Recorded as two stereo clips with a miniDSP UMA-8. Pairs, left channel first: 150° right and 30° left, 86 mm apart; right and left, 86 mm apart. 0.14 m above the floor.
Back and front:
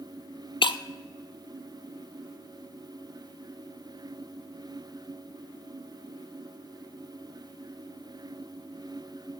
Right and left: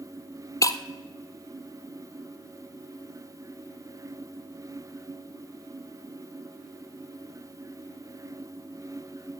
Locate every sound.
0.6 s breaking glass: 140° right, 0.6 m